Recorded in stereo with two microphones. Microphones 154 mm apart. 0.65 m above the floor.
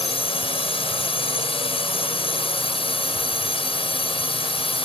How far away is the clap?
I don't hear a clap.